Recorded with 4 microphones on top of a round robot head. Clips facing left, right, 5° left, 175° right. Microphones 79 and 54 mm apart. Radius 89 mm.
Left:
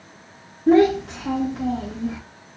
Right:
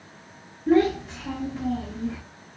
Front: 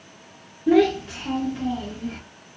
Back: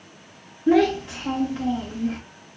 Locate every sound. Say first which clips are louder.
0.7 s a child speaking: left 5 dB, front 1 dB; 110° left, 0.7 m